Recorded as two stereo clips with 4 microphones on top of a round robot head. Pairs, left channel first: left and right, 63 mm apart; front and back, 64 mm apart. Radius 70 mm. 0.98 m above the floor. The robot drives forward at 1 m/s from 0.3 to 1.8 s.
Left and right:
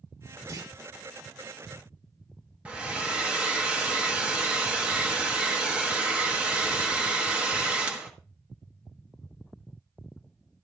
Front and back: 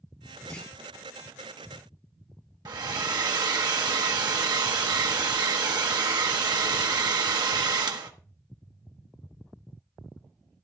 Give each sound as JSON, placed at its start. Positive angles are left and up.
{"t": 0.5, "sound": "a clunk", "azimuth_deg": -55, "distance_m": 1.9}
{"t": 2.6, "sound": "a hair dryer", "azimuth_deg": -165, "distance_m": 1.2}